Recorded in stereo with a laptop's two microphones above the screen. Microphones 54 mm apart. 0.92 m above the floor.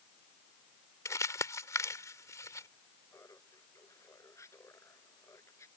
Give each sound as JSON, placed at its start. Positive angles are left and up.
{"t": 1.1, "sound": "crumpling", "side_deg": 75}
{"t": 3.1, "sound": "laughter", "side_deg": 65}